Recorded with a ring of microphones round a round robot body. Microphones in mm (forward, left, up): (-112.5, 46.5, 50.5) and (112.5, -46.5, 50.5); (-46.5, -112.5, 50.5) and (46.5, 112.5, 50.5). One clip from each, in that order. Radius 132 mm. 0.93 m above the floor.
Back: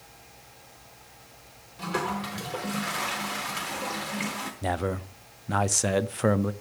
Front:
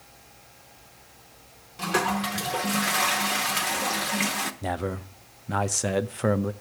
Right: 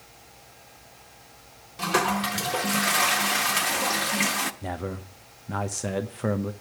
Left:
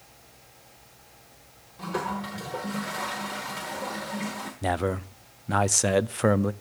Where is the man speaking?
85° left, 0.6 m.